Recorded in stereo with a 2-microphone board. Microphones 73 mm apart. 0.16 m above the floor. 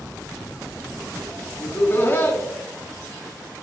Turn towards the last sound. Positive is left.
turn(degrees=30)  # may be behind; listen again after turning